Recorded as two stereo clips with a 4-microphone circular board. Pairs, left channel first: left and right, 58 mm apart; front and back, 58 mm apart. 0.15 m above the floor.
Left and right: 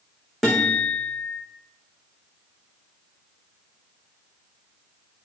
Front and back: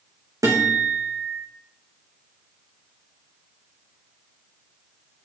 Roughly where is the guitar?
Behind.